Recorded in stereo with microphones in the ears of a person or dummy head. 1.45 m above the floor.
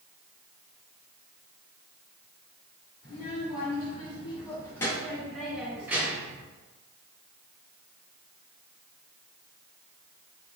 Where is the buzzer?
I don't hear a buzzer.